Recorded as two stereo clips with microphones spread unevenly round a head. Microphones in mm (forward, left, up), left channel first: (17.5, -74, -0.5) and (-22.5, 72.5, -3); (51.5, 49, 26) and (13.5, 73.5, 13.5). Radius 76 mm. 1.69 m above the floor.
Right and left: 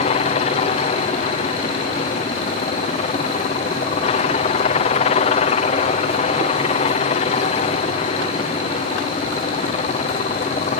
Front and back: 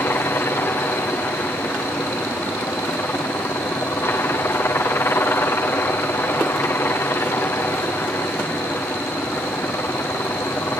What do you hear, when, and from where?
0.0 s a helicopter: 60° right